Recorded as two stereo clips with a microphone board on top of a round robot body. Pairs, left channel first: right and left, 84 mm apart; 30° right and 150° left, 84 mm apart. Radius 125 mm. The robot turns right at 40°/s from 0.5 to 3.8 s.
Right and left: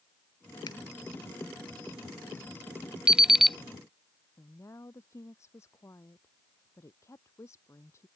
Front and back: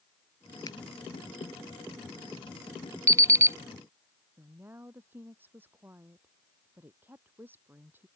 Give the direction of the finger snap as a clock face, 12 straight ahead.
2 o'clock.